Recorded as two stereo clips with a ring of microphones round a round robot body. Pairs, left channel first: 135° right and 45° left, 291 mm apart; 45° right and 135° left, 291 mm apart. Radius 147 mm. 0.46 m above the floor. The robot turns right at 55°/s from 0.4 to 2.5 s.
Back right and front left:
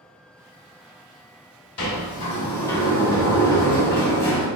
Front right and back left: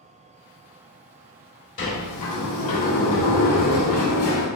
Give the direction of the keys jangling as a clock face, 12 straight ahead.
No keys jangling in this recording.